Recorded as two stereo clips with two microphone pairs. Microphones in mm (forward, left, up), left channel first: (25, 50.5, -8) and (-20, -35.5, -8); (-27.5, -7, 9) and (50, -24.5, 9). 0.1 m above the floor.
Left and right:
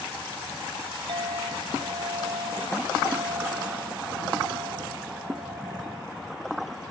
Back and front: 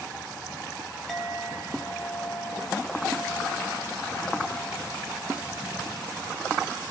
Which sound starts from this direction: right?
A clink, at 1.1 s.